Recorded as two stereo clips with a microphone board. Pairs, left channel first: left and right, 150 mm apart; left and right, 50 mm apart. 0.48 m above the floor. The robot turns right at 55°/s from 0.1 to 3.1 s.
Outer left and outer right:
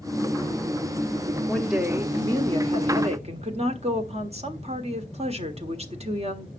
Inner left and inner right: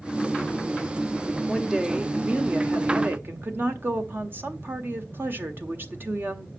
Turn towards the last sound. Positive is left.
turn(degrees=-95)